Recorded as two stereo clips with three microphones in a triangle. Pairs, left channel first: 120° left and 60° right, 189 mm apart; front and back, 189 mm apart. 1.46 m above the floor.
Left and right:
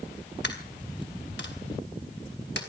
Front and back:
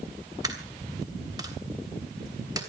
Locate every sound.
0.4 s a dropped coin: 110° left, 3 m